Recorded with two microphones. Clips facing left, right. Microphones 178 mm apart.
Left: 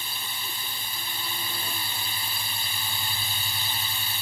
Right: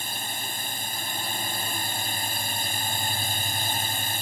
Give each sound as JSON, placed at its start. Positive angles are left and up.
{"t": 0.0, "sound": "a drone", "side_deg": -50}